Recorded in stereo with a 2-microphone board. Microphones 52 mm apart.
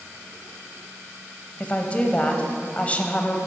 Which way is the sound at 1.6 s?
25° left (ahead or behind).